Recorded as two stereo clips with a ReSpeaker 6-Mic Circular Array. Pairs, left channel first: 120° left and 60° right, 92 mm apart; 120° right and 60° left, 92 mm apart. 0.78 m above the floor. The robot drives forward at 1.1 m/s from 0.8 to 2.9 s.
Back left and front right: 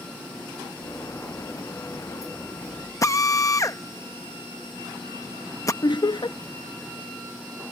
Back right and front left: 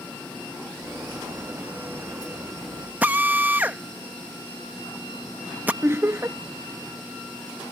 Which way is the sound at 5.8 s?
115° left.